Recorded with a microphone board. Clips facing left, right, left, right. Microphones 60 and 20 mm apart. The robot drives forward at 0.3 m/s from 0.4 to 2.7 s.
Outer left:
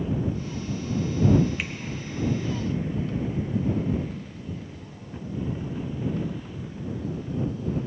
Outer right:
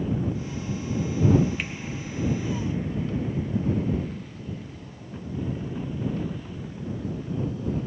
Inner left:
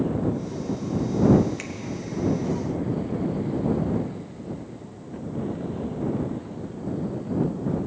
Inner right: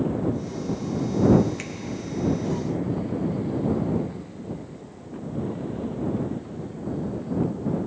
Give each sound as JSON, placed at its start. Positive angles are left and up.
{"t": 1.6, "sound": "a finger snap", "side_deg": 0, "distance_m": 1.0}